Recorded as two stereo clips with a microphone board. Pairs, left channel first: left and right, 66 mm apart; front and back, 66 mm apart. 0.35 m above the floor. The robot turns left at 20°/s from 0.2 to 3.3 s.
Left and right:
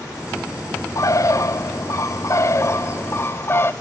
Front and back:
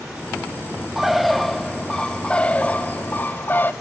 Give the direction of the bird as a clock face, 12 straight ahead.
9 o'clock.